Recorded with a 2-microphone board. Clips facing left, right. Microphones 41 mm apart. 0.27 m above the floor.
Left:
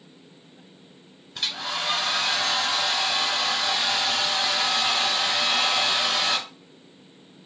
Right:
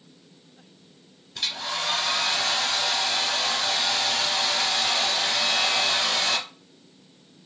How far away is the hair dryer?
About 1.0 m.